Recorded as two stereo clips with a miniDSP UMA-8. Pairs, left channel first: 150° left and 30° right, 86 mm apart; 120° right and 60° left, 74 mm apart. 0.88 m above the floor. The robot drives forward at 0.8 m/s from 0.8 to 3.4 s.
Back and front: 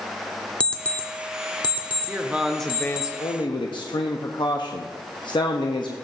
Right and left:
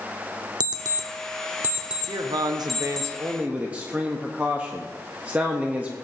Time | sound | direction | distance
0.6 | an alarm clock | 75° left | 0.8 m
2.1 | a man speaking | 35° left | 0.8 m